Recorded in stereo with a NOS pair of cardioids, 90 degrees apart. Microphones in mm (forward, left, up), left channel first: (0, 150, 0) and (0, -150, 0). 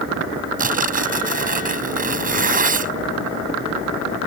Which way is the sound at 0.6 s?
25° right.